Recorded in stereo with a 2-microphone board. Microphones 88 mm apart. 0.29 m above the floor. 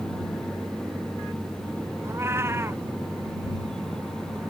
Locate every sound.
2.0 s a cat meowing: 30° right (ahead or behind)